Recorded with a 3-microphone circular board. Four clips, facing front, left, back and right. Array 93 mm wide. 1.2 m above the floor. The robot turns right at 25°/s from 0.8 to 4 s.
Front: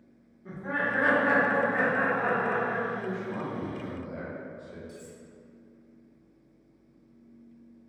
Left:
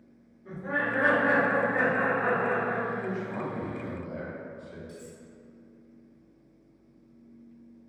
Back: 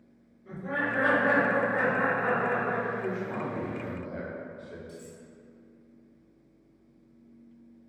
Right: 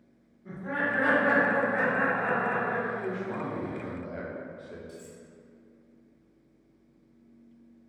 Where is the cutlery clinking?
105° left, 1.4 m.